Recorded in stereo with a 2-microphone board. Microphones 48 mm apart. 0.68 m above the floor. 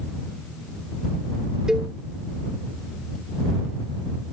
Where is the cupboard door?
I don't hear a cupboard door.